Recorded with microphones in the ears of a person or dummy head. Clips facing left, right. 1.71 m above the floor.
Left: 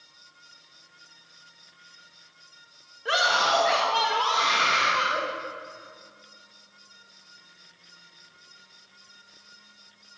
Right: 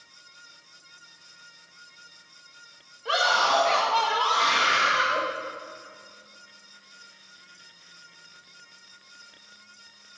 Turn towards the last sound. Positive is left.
turn(degrees=-15)  # may be behind; listen again after turning